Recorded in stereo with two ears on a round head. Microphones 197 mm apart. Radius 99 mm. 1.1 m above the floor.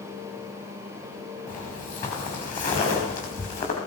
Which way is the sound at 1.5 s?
35° left (ahead or behind).